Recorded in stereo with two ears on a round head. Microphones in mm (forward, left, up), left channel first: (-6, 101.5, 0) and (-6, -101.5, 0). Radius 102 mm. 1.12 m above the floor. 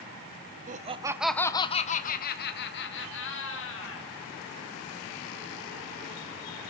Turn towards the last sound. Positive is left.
turn(degrees=60)  # may be behind; listen again after turning